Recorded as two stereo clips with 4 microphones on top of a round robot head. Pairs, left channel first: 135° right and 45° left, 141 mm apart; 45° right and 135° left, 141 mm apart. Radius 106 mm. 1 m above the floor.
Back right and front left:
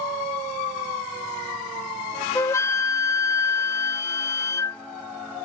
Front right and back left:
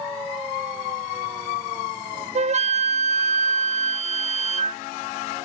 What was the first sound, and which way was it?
A flute, 160° left.